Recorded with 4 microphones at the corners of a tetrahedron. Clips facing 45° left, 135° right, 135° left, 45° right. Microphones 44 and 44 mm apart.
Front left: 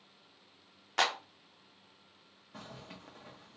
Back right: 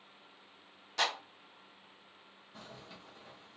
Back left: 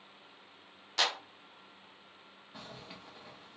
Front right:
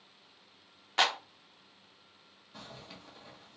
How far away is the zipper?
About 0.8 m.